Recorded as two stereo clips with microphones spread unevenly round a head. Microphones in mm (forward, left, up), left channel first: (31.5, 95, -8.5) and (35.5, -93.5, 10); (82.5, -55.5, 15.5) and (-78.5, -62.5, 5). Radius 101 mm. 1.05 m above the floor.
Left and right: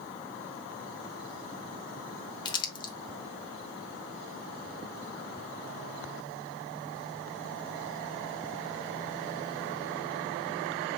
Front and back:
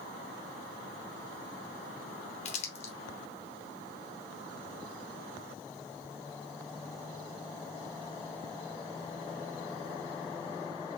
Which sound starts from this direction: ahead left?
Crumpling, at 2.5 s.